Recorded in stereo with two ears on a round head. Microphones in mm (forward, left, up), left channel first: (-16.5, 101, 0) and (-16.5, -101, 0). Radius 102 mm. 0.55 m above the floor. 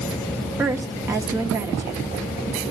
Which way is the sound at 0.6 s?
10° right (ahead or behind).